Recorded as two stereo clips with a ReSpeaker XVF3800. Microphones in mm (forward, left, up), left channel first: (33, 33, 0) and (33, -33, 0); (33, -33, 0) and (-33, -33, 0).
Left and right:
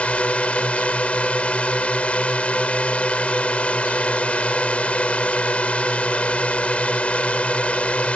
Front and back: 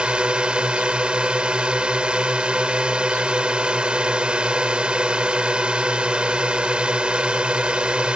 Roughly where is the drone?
Behind left.